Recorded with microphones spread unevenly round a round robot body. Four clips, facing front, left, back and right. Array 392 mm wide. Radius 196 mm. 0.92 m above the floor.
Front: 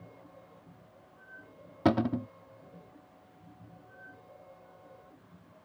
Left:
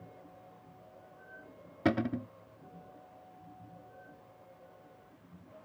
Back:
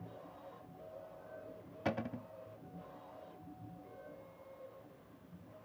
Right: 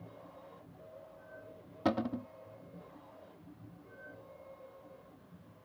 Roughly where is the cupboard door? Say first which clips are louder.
Left 2 dB, front 12 dB; ahead.